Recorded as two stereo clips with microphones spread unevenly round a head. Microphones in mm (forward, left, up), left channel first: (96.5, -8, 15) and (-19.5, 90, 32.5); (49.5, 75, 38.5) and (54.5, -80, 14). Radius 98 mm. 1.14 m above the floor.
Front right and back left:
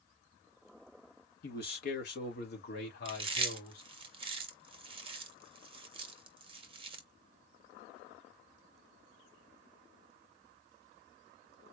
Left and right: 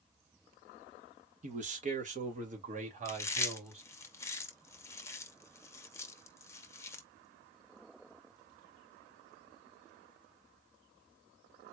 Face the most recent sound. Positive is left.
turn(degrees=165)